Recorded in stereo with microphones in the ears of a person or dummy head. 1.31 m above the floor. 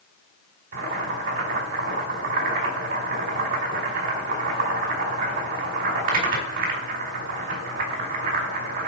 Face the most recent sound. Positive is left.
turn(degrees=-45)  # may be behind; listen again after turning